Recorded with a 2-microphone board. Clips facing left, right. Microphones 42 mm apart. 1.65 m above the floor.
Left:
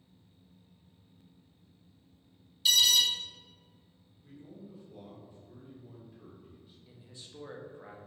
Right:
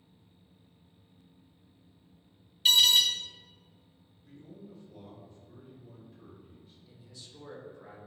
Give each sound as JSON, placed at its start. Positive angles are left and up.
{"t": 2.6, "sound": "an alarm", "side_deg": -35, "distance_m": 0.5}
{"t": 4.2, "sound": "a man speaking", "side_deg": 10, "distance_m": 1.0}
{"t": 6.9, "sound": "a man speaking", "side_deg": 25, "distance_m": 0.6}